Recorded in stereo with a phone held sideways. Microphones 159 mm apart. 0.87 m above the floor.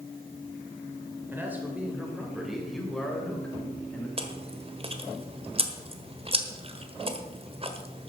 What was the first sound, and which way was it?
A man speaking, 15° right (ahead or behind).